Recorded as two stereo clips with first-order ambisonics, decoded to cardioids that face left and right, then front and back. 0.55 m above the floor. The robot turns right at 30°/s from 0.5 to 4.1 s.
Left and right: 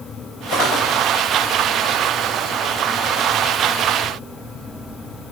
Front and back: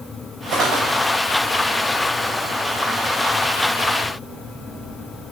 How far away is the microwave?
No microwave in this recording.